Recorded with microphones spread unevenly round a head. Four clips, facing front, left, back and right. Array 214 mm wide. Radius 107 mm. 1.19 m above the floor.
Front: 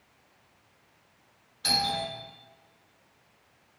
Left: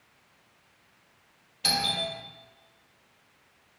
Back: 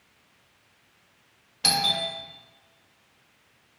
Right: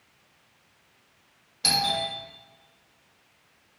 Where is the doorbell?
160° right, 0.9 m.